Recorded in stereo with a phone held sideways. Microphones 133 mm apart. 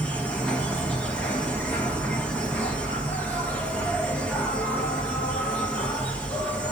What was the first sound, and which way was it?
An insect, 10° left (ahead or behind).